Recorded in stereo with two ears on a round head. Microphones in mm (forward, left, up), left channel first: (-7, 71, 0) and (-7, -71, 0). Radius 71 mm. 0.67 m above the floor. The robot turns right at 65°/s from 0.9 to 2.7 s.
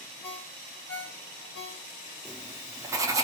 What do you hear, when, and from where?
0.2 s a ringtone: 40° left (ahead or behind), 1.6 m; by 1.9 s 65° left (ahead or behind), 1.6 m
2.2 s writing: 5° left (ahead or behind), 0.7 m; by 3.2 s 20° right (ahead or behind), 0.7 m